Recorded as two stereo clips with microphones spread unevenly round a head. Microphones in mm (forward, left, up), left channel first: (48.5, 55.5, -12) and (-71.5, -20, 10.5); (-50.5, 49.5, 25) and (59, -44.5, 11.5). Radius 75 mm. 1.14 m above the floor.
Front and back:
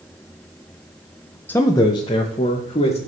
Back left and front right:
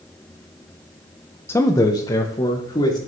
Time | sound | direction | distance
1.5 | a man speaking | 70° left | 0.6 m